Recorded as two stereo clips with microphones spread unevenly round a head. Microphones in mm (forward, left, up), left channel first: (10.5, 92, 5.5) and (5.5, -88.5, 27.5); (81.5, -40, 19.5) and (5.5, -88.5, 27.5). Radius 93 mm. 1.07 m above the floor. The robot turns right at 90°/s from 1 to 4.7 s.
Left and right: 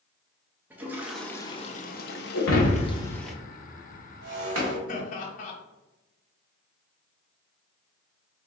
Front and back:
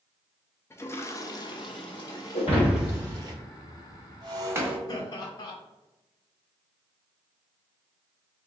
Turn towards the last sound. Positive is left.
turn(degrees=70)